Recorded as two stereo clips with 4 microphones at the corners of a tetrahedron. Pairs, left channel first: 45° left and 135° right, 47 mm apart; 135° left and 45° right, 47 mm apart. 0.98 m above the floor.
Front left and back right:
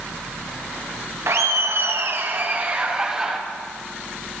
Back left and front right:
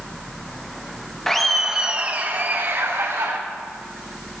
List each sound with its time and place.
1.3 s laughter: 145° right, 1.0 m; by 3.4 s 65° right, 1.3 m